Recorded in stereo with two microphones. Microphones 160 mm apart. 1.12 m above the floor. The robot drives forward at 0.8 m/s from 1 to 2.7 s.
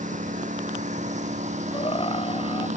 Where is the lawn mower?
55° right (ahead or behind); by 2.8 s 50° right (ahead or behind).